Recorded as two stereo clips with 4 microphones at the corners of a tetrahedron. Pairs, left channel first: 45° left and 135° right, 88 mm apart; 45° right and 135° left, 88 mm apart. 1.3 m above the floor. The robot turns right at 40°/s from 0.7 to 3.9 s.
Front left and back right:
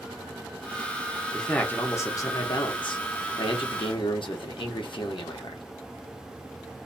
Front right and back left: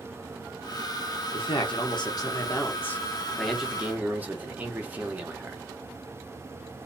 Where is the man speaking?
40° right, 0.8 m; by 5.6 s 65° left, 0.8 m.